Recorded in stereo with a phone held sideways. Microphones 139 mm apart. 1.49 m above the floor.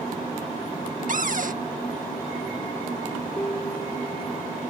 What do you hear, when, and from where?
1.1 s a cupboard door: 65° right (ahead or behind)
3.4 s a piano: 25° left (ahead or behind)